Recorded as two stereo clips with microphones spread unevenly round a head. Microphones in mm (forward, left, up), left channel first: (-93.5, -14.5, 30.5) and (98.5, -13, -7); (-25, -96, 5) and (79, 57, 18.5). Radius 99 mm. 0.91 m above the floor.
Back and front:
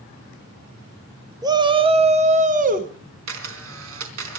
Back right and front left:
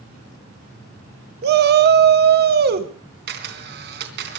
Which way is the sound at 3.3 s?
30° left.